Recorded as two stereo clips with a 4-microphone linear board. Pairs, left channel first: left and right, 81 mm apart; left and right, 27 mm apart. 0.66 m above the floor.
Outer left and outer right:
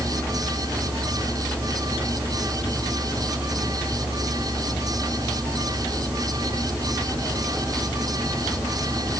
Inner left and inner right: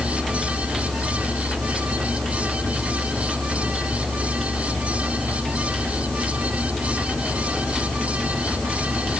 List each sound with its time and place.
Only background noise.